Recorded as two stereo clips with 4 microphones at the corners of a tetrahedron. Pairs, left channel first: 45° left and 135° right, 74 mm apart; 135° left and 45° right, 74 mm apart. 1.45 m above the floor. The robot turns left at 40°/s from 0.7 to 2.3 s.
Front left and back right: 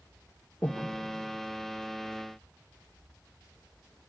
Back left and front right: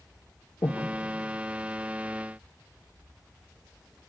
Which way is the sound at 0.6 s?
105° left.